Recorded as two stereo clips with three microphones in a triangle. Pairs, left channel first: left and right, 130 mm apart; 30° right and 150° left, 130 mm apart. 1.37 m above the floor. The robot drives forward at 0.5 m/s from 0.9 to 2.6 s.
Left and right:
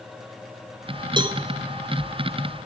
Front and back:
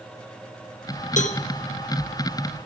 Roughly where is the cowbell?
Ahead right.